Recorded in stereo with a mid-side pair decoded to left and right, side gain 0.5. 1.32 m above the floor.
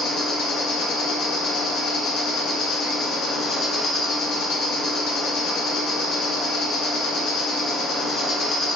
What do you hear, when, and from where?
0.0 s an insect: 65° left, 0.9 m